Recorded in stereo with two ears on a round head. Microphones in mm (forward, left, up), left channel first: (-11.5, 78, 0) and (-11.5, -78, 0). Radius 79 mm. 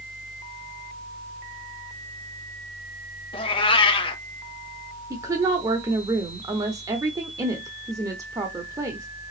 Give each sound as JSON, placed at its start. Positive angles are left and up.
{"t": 3.3, "sound": "a cat meowing", "side_deg": 30, "distance_m": 0.6}
{"t": 5.1, "sound": "a woman speaking", "side_deg": -20, "distance_m": 0.9}